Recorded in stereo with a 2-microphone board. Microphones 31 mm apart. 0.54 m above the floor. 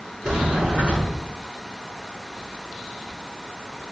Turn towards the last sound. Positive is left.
turn(degrees=-30)  # may be behind; listen again after turning